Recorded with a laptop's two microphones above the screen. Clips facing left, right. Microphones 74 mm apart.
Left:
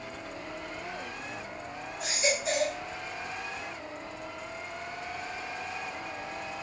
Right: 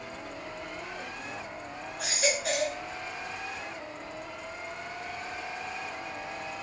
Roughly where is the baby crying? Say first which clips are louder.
Even; right.